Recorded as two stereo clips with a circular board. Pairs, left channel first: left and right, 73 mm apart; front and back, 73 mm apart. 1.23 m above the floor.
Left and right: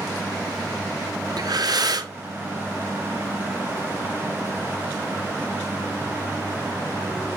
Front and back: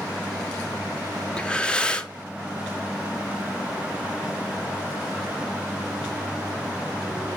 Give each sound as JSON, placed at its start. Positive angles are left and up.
{"t": 1.4, "sound": "breathing", "azimuth_deg": -75, "distance_m": 1.2}